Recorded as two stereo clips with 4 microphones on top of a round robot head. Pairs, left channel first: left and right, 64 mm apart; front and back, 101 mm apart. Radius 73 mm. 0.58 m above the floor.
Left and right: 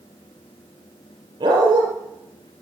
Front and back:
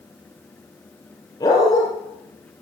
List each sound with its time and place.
1.4 s a dog barking: 65° right, 4 m